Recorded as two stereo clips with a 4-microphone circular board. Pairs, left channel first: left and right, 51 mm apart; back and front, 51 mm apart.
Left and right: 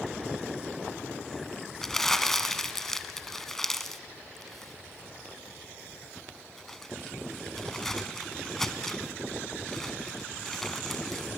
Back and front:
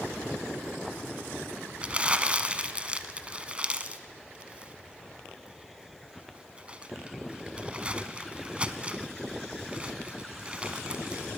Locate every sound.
1.8 s crumpling: 20° left, 1.1 m